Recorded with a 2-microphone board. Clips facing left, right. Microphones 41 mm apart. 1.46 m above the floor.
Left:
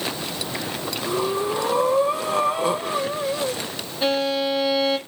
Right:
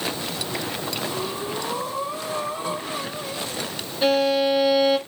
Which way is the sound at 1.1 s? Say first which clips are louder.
Left 5 dB; 70° left (ahead or behind).